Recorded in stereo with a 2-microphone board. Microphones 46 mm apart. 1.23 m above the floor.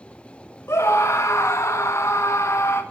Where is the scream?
80° left, 1.2 m.